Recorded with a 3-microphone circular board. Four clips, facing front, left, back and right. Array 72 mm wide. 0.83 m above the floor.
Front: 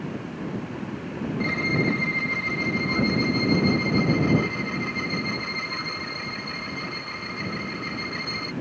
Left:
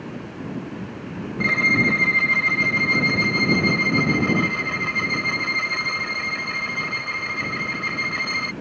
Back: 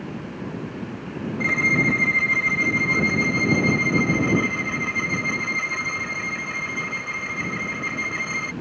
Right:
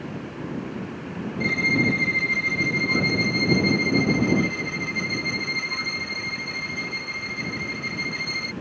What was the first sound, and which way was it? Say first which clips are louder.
A violin: left 3 dB, back 4 dB; 110° left.